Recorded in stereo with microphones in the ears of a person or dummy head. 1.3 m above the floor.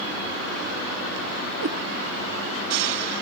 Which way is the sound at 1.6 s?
65° right (ahead or behind).